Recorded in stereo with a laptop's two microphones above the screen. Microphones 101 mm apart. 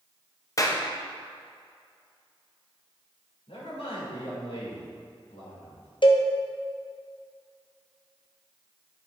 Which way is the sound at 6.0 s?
55° left (ahead or behind).